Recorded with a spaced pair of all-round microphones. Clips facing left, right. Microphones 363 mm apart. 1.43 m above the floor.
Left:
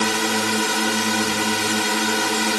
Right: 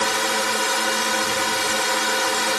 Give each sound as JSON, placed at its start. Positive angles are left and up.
{"t": 0.0, "sound": "a drone", "side_deg": 45}